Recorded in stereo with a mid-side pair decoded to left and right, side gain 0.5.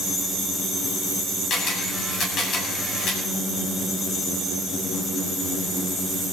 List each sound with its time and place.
1.5 s a camera shutter: 55° left, 9 m